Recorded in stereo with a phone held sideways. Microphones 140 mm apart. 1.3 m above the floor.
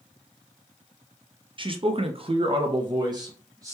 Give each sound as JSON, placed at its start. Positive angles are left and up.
{"t": 1.6, "sound": "a man speaking", "side_deg": -35, "distance_m": 0.6}